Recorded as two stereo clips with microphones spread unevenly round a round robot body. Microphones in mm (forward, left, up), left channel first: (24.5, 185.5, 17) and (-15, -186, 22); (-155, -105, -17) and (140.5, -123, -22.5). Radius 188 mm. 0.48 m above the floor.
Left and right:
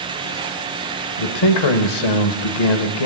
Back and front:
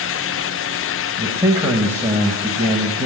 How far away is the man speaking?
About 1.6 m.